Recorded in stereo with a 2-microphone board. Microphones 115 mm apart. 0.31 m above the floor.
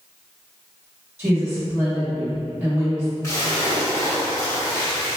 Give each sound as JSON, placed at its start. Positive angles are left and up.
{"t": 1.2, "sound": "a woman speaking", "side_deg": -20, "distance_m": 1.6}
{"t": 3.2, "sound": "a splash", "side_deg": 25, "distance_m": 1.4}